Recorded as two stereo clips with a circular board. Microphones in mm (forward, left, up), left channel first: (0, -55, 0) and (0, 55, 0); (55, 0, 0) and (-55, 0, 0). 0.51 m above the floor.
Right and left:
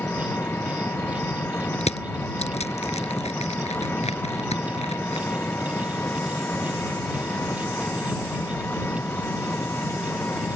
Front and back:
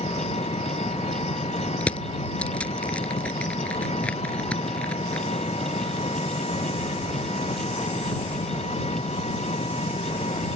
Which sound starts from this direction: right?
Crushing, at 1.8 s.